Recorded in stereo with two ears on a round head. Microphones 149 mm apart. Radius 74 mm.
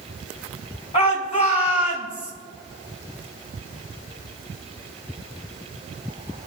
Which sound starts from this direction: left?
A shout, at 0.9 s.